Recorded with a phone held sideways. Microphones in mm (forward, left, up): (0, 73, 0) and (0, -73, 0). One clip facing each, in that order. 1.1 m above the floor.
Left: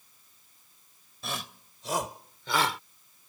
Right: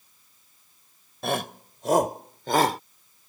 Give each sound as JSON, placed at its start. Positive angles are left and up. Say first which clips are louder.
{"t": 1.2, "sound": "a shout", "louder": "right 11 dB", "side_deg": -55}